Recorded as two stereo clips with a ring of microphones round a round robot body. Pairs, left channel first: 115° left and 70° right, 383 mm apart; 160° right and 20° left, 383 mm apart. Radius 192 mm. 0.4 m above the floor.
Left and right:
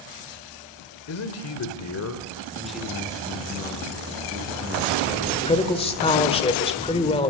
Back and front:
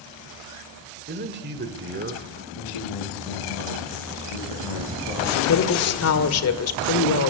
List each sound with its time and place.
1.1 s a man speaking: 75° left, 1.7 m
2.5 s a man speaking: 160° right, 7.5 m
5.5 s a woman speaking: straight behind, 1.7 m